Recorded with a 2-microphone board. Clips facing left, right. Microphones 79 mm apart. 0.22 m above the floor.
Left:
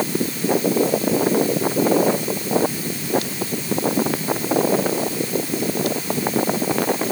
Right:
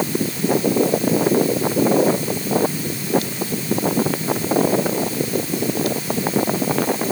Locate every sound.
Only background noise.